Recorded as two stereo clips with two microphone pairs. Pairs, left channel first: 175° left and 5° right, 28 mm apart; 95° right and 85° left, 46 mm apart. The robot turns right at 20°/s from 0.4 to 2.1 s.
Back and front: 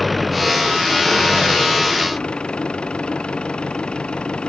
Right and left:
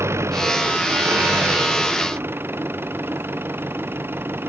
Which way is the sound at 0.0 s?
85° left.